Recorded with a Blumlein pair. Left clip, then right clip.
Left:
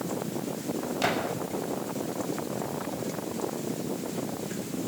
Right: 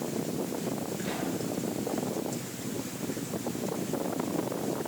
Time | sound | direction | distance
1.0 | a gunshot | 40° left | 5.5 m